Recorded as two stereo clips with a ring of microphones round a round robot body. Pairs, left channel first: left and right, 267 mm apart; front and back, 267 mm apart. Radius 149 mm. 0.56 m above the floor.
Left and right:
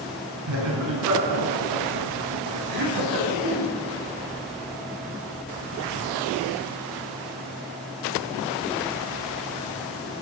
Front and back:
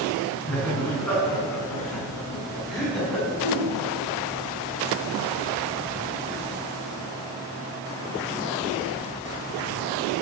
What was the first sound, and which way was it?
Laughter, 85° right.